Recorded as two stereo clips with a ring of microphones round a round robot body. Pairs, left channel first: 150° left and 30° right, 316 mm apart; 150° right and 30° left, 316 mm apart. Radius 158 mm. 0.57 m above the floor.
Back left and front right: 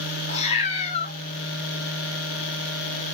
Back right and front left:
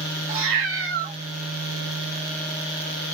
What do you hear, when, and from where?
0.3 s a cat meowing: 80° left, 1.6 m